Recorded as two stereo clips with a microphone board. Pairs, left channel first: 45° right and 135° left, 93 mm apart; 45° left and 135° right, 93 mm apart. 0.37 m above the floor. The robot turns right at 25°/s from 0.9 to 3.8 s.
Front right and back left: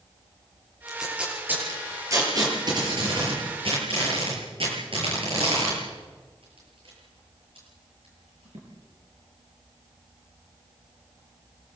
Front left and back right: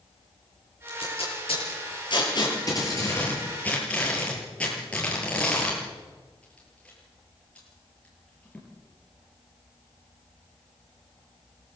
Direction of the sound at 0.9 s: 50° left.